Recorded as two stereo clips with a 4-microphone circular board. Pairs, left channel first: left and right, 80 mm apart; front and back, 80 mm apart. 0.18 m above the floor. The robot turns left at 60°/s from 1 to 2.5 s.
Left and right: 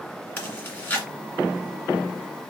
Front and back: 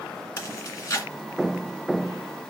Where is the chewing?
30° left, 1.9 m.